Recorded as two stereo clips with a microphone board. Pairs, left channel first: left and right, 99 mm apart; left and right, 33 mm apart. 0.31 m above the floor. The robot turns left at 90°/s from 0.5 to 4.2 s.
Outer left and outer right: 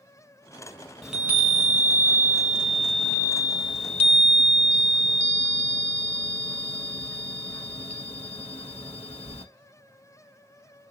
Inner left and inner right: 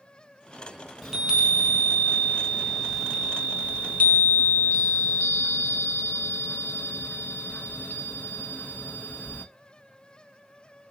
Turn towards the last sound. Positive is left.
turn(degrees=80)